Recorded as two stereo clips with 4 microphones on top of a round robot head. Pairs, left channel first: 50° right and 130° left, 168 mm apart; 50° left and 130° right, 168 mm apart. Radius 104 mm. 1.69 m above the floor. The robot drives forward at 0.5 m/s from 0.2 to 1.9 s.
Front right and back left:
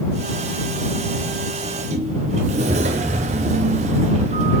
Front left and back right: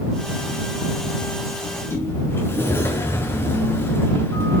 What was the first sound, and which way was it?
A sliding door, 90° left.